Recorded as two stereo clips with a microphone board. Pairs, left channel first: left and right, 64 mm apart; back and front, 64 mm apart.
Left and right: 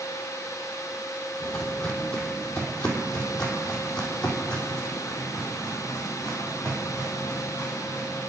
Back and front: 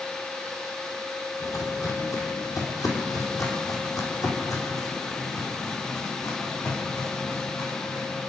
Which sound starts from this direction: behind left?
Footsteps, at 1.4 s.